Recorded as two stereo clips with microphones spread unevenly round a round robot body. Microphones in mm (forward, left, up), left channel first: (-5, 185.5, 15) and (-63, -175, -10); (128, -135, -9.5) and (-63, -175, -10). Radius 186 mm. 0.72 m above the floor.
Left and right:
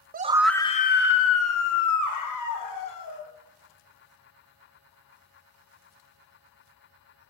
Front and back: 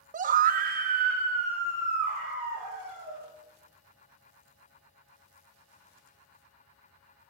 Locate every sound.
0.1 s a scream: 150° right, 0.6 m; by 3.3 s 120° left, 2.5 m